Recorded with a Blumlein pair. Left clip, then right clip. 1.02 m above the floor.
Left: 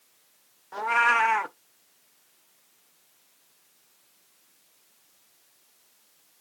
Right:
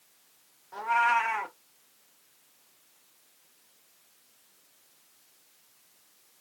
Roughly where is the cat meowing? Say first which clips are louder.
Left 3 dB; left.